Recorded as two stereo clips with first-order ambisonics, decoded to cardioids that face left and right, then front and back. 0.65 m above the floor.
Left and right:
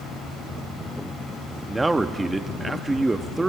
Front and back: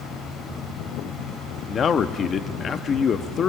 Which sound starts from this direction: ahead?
A man speaking, at 1.7 s.